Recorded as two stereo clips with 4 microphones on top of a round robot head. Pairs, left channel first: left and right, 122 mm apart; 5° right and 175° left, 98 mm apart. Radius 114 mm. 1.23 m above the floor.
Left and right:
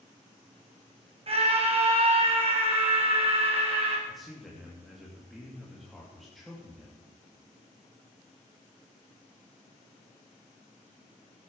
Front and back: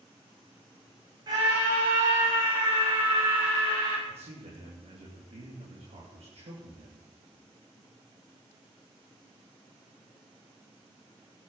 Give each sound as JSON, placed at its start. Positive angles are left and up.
{"t": 1.3, "sound": "a scream", "azimuth_deg": -130, "distance_m": 3.5}
{"t": 4.1, "sound": "a man speaking", "azimuth_deg": 180, "distance_m": 3.0}